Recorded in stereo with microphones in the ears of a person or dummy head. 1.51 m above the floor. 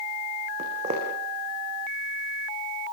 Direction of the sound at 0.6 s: 35° right (ahead or behind).